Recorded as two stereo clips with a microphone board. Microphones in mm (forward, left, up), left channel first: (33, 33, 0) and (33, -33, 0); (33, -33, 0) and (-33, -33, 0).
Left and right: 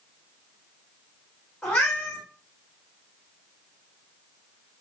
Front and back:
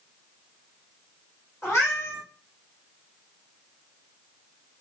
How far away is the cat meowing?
About 1.8 m.